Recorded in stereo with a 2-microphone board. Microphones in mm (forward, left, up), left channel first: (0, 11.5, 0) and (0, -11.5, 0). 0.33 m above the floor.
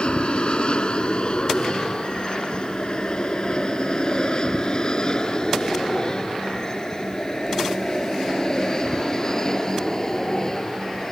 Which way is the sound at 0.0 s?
50° left (ahead or behind).